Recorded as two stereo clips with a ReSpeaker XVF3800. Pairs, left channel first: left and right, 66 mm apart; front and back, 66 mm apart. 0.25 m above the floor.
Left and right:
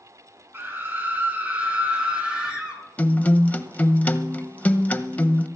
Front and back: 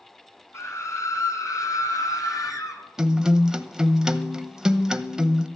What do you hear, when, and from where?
0.5 s a scream: 35° right, 3 m; by 2.8 s 15° right, 3.5 m
3.0 s a guitar: 115° left, 0.7 m